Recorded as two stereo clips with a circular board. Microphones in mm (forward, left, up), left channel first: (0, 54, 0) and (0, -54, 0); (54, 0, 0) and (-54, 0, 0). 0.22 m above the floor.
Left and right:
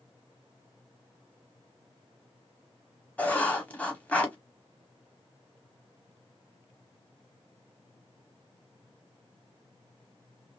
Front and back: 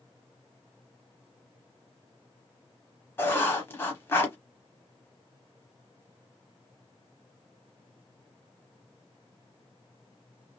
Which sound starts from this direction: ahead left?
Writing, at 3.2 s.